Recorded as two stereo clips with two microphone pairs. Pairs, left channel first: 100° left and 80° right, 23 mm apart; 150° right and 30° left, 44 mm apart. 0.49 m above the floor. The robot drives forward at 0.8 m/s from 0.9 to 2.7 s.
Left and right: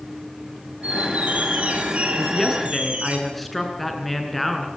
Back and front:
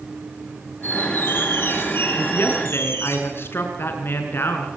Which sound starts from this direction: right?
A squeak, at 0.8 s.